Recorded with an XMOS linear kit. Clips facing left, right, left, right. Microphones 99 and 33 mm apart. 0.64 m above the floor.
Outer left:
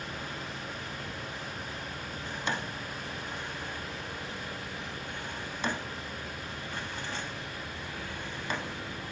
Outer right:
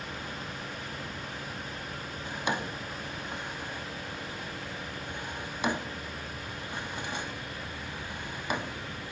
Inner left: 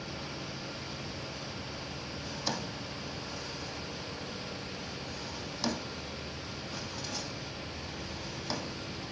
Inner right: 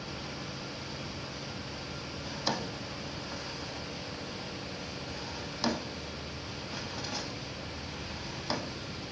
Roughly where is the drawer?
Centre.